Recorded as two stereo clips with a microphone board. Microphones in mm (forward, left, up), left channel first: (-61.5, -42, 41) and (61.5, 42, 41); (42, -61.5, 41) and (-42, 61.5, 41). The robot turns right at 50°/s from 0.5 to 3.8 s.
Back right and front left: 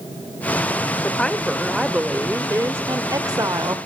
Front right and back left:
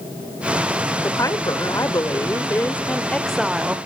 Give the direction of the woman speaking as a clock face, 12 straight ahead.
3 o'clock.